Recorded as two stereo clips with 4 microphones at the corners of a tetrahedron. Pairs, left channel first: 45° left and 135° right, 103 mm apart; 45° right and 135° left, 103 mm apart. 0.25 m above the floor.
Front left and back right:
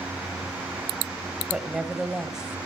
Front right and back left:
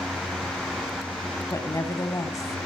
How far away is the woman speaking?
About 1.3 m.